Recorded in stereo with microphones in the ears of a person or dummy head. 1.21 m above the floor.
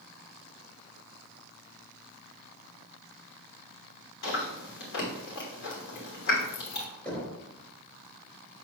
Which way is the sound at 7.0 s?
10° left (ahead or behind).